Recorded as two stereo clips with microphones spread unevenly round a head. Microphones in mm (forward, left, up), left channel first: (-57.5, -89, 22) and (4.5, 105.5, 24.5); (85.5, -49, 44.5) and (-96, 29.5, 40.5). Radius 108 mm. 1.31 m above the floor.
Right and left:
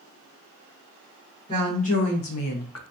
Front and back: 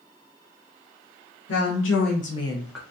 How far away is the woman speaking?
About 1.1 m.